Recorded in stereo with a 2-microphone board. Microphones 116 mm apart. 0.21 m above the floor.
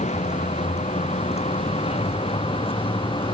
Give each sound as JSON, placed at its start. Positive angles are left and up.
{"t": 0.0, "sound": "a vehicle", "side_deg": 75}